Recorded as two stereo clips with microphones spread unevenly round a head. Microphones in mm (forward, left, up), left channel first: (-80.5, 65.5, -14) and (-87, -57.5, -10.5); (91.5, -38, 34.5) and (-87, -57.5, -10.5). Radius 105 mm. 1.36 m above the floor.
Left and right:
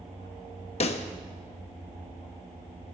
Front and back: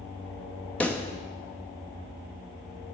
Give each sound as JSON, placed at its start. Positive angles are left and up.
{"t": 0.8, "sound": "a pop", "azimuth_deg": 75, "distance_m": 0.8}